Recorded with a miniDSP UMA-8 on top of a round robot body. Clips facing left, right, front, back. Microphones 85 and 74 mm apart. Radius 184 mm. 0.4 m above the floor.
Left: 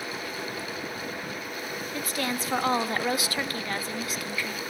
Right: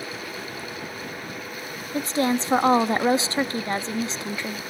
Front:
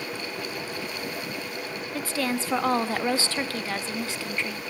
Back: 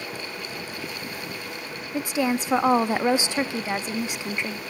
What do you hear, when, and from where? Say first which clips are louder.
1.9 s a woman speaking: right 9 dB, back 4 dB; 125° right, 0.9 m